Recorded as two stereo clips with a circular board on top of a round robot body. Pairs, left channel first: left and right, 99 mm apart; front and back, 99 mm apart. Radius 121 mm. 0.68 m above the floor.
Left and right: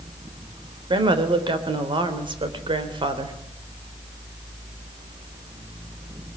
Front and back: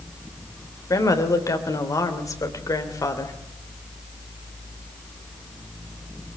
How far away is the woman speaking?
About 3 m.